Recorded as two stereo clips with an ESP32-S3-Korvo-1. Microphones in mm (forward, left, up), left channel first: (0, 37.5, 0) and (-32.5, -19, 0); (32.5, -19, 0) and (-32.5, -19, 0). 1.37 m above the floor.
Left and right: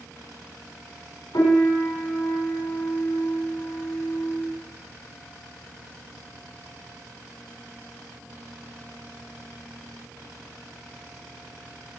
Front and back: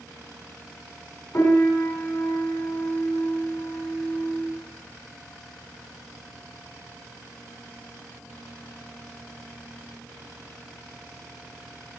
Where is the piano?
45° left, 5 m.